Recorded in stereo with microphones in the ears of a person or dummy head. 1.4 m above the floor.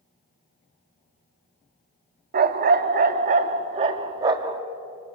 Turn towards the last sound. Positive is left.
turn(degrees=-20)  # may be behind; listen again after turning